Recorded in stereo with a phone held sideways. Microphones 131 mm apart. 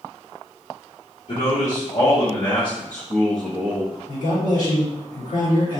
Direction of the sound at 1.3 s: 65° left (ahead or behind).